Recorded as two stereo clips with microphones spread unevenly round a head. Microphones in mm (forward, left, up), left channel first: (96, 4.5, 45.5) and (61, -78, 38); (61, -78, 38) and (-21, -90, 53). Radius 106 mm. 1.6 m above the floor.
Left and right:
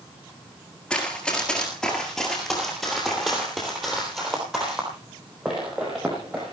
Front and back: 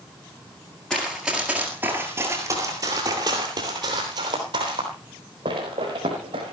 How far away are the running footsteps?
About 1.6 m.